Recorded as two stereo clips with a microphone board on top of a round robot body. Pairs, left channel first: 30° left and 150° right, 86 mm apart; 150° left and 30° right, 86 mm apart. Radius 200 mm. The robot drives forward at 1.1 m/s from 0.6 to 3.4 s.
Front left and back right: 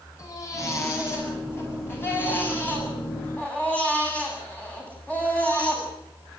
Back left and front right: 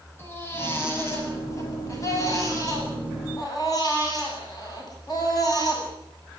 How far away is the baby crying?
About 8.5 m.